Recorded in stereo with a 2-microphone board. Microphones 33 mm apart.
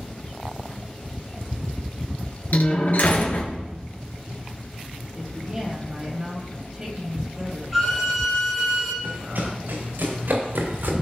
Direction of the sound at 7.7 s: 10° right (ahead or behind).